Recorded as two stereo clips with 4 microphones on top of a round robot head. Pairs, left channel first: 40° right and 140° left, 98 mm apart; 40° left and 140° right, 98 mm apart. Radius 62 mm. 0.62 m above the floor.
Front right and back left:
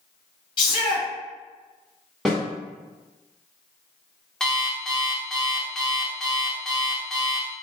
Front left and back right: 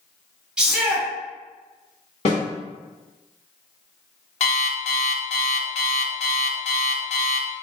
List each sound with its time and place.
0.6 s a shout: 55° right, 1.9 m
2.2 s a snare drum: 50° left, 1.8 m
4.4 s an alarm clock: 45° left, 0.6 m